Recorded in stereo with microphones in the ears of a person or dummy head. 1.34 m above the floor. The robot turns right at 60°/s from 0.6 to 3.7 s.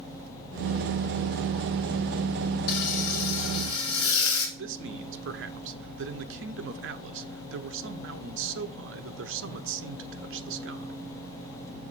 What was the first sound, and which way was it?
Frying, 50° left.